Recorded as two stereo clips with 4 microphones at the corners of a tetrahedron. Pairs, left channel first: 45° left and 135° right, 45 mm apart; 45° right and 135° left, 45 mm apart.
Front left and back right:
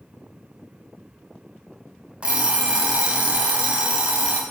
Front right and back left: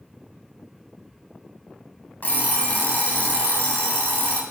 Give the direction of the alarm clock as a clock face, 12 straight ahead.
2 o'clock.